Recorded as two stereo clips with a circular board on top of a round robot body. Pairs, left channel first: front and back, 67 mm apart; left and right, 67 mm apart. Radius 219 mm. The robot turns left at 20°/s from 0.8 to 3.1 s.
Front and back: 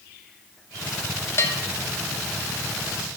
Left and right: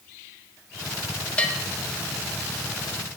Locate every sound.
1.4 s a bell: 25° left, 1.7 m; by 1.6 s 20° left, 1.7 m